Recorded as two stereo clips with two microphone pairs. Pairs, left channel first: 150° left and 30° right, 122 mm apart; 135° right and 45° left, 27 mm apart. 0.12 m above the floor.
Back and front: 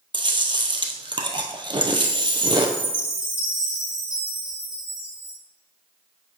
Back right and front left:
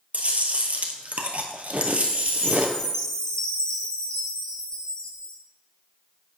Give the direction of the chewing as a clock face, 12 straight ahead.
12 o'clock.